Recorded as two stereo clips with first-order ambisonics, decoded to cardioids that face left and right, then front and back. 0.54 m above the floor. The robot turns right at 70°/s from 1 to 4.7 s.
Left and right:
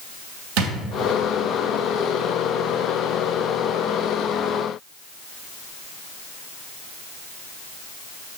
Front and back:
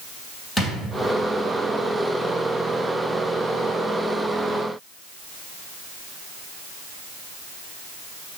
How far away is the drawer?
About 1.6 m.